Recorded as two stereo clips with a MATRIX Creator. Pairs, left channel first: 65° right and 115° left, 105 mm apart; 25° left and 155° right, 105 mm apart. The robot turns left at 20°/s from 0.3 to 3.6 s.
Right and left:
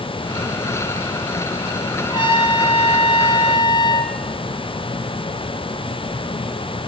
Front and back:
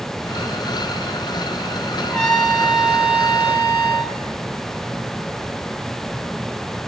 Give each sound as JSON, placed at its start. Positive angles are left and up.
{"t": 2.1, "sound": "a trumpet", "azimuth_deg": -55, "distance_m": 1.9}